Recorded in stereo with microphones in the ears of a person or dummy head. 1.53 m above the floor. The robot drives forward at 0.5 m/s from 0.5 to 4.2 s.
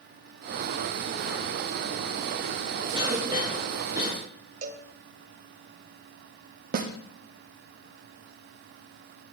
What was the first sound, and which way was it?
A cough, 25° right (ahead or behind).